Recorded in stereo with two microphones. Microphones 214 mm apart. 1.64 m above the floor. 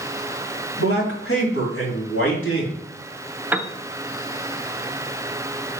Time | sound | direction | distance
0.8 | a man speaking | 70° left (ahead or behind) | 3.5 m
3.5 | a piano | 10° right (ahead or behind) | 0.5 m